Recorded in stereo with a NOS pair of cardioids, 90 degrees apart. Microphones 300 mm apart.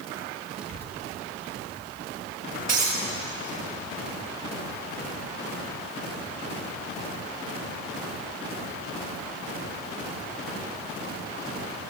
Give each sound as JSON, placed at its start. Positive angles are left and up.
{"t": 0.6, "sound": "a child speaking", "azimuth_deg": -60, "distance_m": 1.6}
{"t": 2.7, "sound": "breaking glass", "azimuth_deg": -65, "distance_m": 5.0}